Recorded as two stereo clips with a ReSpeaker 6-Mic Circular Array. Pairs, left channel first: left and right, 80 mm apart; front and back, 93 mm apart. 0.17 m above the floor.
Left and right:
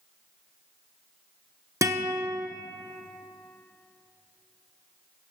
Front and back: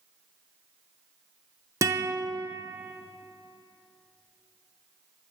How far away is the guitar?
About 0.9 m.